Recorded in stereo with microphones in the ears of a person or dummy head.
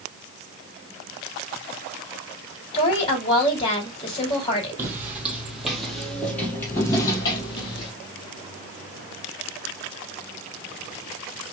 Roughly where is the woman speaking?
Left.